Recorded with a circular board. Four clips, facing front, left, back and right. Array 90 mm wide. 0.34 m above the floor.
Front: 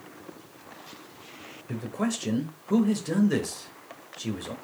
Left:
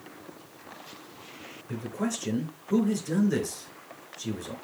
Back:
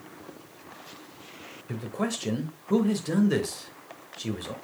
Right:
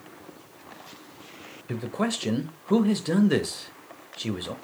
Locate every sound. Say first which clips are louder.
1.7 s a man speaking: right 3 dB, front 1 dB; 95° right, 1.1 m